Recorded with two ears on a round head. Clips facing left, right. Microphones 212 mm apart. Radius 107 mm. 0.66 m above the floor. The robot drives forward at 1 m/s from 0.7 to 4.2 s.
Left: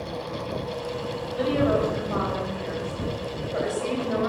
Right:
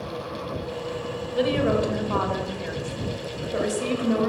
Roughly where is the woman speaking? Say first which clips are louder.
Right 1 dB; right.